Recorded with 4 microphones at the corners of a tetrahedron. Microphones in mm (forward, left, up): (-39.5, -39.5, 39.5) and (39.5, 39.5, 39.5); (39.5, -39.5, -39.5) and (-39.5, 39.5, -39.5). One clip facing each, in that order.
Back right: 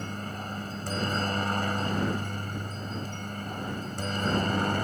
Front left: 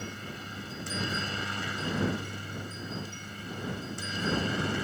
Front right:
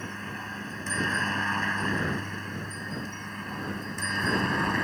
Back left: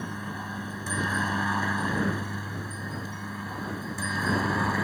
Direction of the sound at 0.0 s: 150° right.